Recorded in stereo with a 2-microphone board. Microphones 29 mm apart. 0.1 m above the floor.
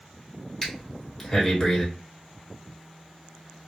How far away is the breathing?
About 1.5 m.